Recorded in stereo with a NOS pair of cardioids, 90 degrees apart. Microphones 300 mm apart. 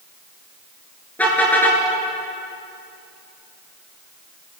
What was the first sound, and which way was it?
A car horn, 5° left.